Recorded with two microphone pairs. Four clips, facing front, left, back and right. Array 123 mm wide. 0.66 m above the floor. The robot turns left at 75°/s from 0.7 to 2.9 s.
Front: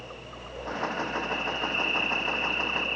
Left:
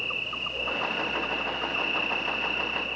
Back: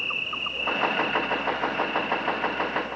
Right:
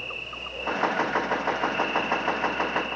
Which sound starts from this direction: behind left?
An insect, at 0.0 s.